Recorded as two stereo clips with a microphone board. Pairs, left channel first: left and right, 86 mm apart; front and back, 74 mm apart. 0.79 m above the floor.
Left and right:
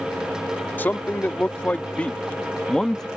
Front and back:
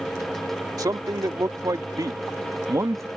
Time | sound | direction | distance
0.8 | a man speaking | 155° left | ?